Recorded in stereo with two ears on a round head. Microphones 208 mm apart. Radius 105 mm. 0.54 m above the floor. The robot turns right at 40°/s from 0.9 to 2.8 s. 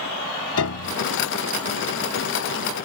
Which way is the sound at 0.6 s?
70° left (ahead or behind).